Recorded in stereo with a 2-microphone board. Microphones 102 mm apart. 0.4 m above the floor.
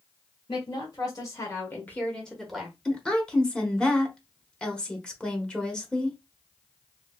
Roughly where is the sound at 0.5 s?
Left.